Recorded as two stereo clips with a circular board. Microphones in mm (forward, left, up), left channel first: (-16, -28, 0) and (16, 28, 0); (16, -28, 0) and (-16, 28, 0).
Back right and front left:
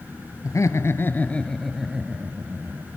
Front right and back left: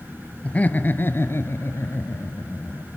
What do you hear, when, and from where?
0.4 s laughter: 120° right, 1.9 m; by 2.9 s straight ahead, 3 m